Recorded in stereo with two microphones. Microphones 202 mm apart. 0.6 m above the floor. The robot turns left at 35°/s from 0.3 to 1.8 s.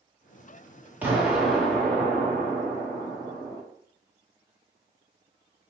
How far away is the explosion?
About 1.3 m.